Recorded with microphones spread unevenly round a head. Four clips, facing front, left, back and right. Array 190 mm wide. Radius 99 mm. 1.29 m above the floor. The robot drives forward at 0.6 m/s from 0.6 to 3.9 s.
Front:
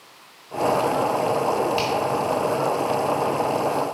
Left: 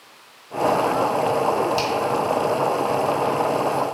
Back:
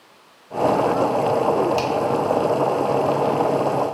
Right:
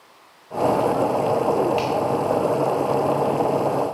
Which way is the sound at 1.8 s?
165° left.